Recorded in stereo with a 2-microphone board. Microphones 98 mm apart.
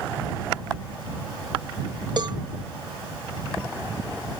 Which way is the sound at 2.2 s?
50° right (ahead or behind).